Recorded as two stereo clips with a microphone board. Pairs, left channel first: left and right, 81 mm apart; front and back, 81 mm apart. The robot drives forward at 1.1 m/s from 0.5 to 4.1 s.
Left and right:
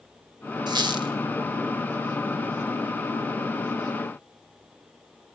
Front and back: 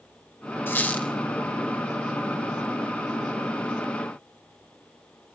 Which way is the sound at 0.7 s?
65° right.